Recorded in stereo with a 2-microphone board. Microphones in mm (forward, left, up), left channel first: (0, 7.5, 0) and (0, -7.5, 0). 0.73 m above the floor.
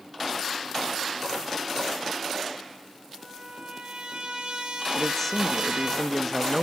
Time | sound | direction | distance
3.2 | a trumpet | 65° right (ahead or behind) | 3.5 m
4.9 | a man speaking | 15° left (ahead or behind) | 0.7 m